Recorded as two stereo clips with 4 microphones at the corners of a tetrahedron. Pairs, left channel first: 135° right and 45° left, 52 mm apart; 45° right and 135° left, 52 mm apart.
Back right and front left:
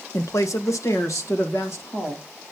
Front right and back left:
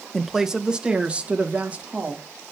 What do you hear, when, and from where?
0.1 s a woman speaking: 130° right, 1.0 m; by 2.2 s 160° right, 3.5 m